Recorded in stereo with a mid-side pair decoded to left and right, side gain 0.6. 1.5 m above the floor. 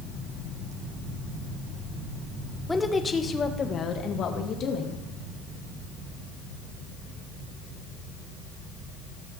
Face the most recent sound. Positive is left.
turn(degrees=55)